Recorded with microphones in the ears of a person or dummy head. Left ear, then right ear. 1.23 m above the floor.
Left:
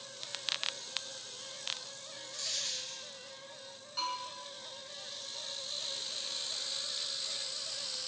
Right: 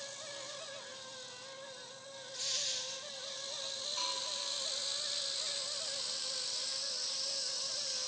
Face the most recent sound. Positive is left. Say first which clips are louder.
# left 3 dB
turn(degrees=10)  # may be behind; listen again after turning